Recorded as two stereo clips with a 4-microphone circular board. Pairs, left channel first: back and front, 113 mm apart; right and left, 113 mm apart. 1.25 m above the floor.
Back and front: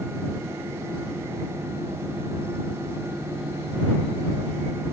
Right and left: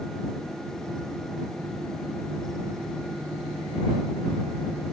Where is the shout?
I don't hear a shout.